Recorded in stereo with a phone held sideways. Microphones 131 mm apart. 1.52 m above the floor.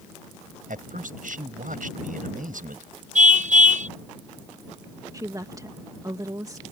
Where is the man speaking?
85° right.